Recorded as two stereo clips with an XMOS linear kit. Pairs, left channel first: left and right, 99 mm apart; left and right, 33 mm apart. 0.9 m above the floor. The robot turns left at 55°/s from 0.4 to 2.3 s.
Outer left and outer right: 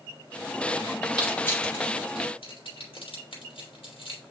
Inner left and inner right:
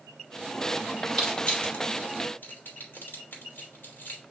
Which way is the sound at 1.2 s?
10° left (ahead or behind).